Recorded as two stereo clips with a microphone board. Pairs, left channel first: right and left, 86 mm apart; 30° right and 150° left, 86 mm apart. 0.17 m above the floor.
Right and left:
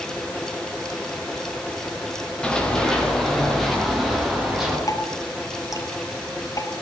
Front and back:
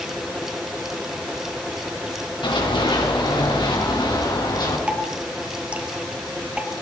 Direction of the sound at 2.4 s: 10° right.